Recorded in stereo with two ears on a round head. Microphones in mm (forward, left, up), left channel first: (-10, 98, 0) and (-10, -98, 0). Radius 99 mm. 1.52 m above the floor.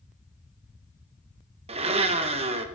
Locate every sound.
1.7 s a blender: 25° right (ahead or behind), 0.7 m